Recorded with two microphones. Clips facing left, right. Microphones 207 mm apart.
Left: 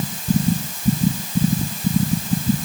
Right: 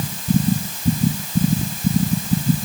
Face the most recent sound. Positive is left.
No sound to turn to.